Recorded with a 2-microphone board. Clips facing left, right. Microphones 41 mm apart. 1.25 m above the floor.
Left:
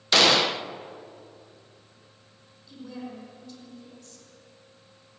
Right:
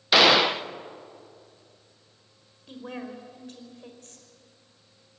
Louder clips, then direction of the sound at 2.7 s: Right 2 dB; 45° right (ahead or behind).